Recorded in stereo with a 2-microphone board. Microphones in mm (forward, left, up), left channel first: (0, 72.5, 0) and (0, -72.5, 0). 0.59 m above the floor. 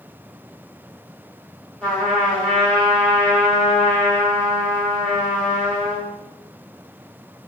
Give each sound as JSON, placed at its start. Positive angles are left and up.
{"t": 1.8, "sound": "a trumpet", "side_deg": 10, "distance_m": 1.1}